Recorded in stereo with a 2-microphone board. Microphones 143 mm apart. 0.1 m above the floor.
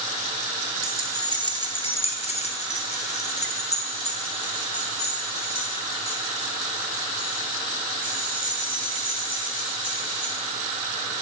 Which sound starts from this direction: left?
Keys jangling, at 0.8 s.